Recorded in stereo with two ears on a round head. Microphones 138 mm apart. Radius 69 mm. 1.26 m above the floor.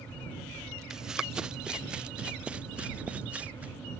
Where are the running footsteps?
5° right (ahead or behind); by 3.7 s 10° right (ahead or behind).